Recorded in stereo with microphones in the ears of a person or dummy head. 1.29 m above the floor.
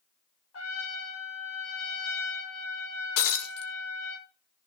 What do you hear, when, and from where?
0.5 s a trumpet: 85° left, 6.5 m
3.2 s breaking glass: 60° left (ahead or behind), 2.0 m